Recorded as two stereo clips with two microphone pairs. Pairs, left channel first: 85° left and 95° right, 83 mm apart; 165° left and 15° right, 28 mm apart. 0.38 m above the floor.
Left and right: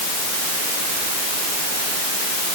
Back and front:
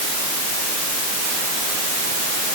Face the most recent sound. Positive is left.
No sound to turn to.